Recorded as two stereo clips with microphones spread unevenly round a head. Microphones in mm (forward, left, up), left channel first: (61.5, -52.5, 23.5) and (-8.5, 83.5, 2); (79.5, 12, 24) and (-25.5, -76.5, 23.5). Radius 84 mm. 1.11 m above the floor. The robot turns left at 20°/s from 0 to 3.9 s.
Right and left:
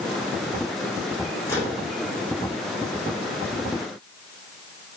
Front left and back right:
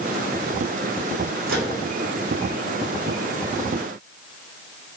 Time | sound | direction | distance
1.5 | a microwave | 140° right | 3 m